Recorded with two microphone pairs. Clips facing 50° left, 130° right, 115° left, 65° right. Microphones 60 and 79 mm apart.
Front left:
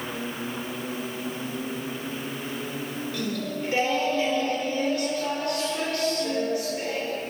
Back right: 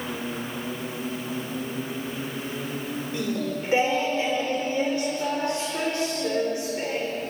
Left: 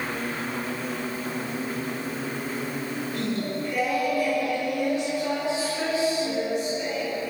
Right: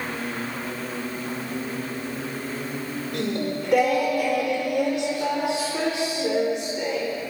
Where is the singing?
60° right, 4.5 m.